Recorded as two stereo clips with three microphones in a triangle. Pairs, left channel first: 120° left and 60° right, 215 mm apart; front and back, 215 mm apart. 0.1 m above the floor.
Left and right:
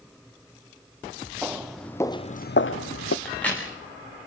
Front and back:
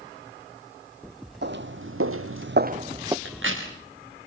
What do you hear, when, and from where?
1.4 s footsteps: 140° right, 1.4 m; by 3.1 s 105° left, 1.0 m
3.2 s a crack: 155° right, 6 m